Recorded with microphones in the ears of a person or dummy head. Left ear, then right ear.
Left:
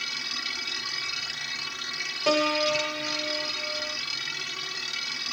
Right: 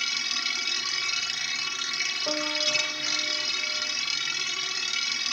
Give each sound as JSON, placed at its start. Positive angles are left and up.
{"t": 0.0, "sound": "a machine running", "side_deg": -30}
{"t": 2.3, "sound": "a piano", "side_deg": 70}